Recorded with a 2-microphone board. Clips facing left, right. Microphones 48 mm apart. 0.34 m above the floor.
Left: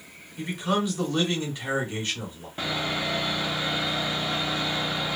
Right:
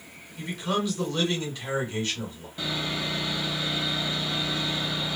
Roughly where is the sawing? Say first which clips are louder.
Left 2 dB; left.